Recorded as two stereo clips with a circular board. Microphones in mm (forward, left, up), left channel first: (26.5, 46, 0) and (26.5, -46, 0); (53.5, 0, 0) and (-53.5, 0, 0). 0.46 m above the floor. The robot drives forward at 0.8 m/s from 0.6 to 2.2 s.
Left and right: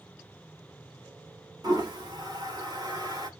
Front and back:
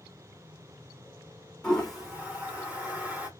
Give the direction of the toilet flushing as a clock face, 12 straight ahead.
3 o'clock.